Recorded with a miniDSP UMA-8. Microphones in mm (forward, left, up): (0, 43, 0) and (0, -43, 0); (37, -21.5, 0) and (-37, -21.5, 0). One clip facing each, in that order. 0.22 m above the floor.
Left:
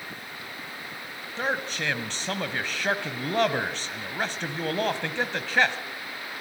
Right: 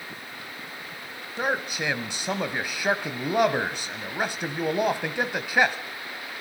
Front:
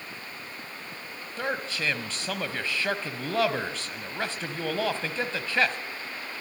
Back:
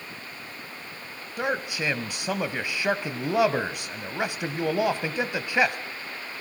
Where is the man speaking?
145° right, 1.0 m.